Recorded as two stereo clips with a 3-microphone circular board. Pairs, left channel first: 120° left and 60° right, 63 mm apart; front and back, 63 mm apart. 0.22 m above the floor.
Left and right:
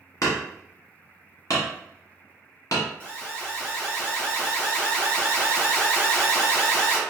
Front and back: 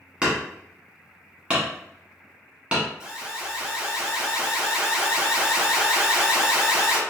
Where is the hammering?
115° left, 1.2 m.